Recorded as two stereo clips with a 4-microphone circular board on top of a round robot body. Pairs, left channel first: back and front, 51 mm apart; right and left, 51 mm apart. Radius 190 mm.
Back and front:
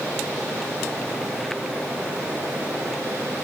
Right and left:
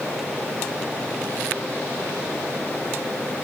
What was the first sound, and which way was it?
Only background noise.